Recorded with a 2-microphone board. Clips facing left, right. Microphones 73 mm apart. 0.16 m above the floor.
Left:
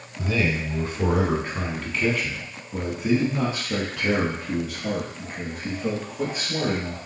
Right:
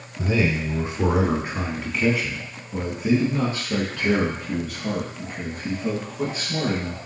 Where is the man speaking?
20° right (ahead or behind), 1.3 m; by 7.0 s 15° left (ahead or behind), 3 m.